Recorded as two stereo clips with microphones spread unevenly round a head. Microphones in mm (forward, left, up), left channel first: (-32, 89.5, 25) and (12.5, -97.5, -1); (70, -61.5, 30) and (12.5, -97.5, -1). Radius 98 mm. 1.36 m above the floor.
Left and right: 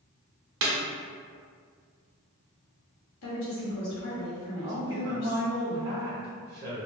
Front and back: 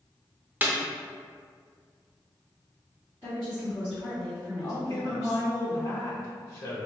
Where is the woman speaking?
105° left, 1.1 m.